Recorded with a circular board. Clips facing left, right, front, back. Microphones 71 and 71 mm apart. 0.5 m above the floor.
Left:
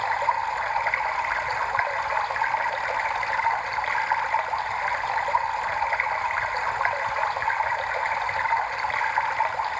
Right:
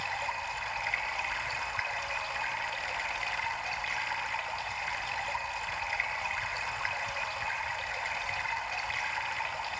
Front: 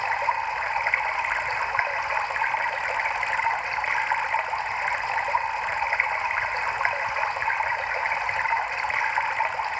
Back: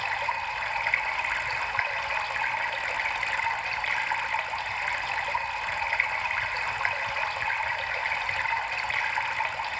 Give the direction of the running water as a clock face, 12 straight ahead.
10 o'clock.